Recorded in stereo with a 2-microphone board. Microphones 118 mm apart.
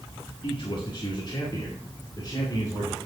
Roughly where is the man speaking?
Left.